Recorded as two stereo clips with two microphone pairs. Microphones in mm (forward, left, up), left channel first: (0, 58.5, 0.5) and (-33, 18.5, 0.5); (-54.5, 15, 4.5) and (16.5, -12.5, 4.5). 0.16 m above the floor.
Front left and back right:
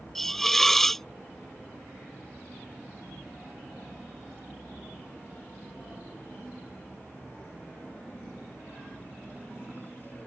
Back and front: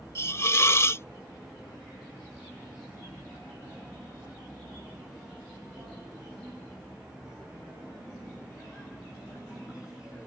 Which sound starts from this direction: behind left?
A hiss, at 0.1 s.